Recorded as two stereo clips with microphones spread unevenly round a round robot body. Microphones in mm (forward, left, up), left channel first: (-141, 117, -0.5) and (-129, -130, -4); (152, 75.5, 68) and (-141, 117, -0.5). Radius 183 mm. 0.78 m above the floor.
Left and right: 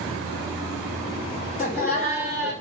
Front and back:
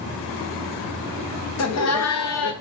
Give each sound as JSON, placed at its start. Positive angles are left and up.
{"t": 1.6, "sound": "laughter", "azimuth_deg": 30, "distance_m": 0.7}